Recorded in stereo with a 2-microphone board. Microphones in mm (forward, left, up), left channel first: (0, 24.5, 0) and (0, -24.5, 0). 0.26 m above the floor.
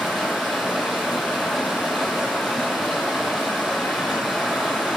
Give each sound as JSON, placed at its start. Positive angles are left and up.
{"t": 0.0, "sound": "running water", "side_deg": -5, "distance_m": 1.4}